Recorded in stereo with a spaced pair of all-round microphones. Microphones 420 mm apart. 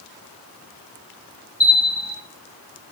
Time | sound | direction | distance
1.6 | a bell | 15° left (ahead or behind) | 1.4 m